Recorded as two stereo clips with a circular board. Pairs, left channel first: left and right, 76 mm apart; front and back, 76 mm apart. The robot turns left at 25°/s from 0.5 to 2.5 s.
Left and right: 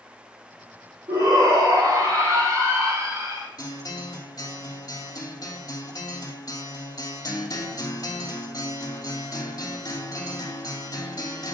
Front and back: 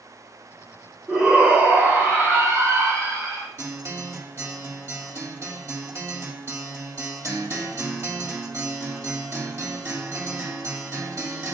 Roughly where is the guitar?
Behind left.